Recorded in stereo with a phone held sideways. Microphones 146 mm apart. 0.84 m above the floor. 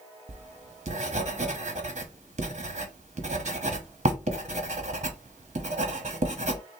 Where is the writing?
50° right (ahead or behind), 0.9 m.